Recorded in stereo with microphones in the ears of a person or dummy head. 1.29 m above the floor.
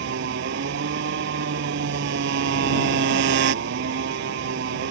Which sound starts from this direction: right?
A motorcycle, at 0.0 s.